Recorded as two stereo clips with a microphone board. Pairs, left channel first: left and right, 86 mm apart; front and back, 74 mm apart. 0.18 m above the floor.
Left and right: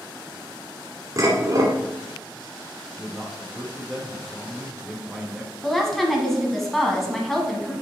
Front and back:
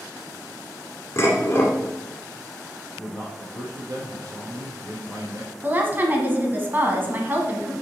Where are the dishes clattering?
50° right, 1.7 m.